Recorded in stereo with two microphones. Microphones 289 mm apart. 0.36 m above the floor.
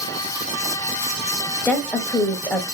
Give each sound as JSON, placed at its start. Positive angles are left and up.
{"t": 1.6, "sound": "a woman speaking", "side_deg": 5, "distance_m": 1.3}